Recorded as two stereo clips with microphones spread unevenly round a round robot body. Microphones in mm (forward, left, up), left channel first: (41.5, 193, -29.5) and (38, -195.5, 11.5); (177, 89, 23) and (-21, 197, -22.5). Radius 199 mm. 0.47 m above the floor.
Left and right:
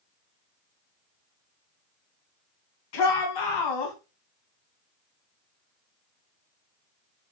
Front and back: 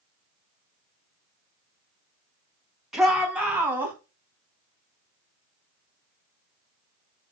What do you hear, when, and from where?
2.9 s a shout: 65° left, 4 m; by 4.0 s 75° left, 3.5 m